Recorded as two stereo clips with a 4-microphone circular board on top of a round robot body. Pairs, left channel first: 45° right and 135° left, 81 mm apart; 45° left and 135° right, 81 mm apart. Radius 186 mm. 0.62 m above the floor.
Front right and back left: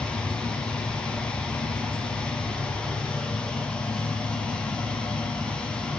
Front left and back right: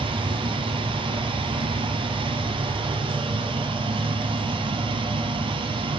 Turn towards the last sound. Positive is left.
turn(degrees=-125)